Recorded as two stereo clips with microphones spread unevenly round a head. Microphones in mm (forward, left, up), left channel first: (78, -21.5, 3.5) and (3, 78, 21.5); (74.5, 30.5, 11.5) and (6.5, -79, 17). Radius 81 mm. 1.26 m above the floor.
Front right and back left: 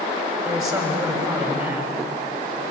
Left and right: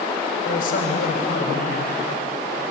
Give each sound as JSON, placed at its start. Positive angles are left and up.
{"t": 0.5, "sound": "a man speaking", "azimuth_deg": 65, "distance_m": 7.5}